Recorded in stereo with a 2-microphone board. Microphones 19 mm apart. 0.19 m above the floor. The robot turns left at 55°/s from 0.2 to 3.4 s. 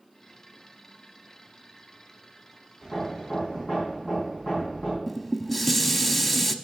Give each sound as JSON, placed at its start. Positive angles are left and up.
{"t": 2.8, "sound": "hammering", "azimuth_deg": 165, "distance_m": 4.5}
{"t": 5.1, "sound": "dishes clattering", "side_deg": 10, "distance_m": 0.6}